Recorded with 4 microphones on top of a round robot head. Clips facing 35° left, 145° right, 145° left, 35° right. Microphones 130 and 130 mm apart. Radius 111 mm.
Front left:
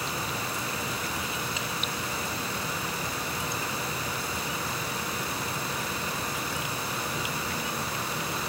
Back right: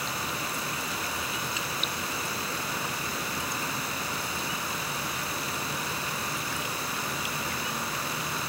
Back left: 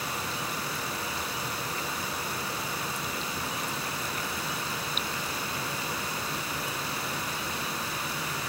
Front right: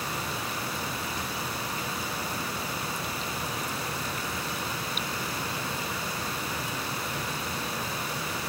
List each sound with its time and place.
Only background noise.